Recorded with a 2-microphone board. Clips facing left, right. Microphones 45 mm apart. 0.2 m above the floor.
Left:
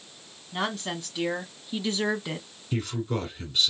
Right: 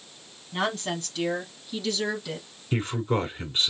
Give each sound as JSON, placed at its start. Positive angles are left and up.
{"t": 0.5, "sound": "a woman speaking", "side_deg": 0, "distance_m": 1.4}
{"t": 2.7, "sound": "a man speaking", "side_deg": -30, "distance_m": 1.9}